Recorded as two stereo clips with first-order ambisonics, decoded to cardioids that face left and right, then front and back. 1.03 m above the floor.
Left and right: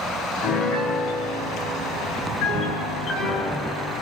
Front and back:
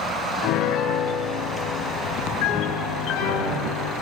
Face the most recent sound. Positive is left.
turn(degrees=35)